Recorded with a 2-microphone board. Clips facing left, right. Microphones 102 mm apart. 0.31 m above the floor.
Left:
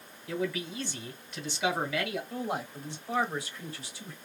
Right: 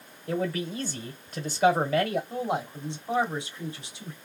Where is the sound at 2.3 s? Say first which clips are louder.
Right 4 dB; 20° right (ahead or behind), 1.2 m.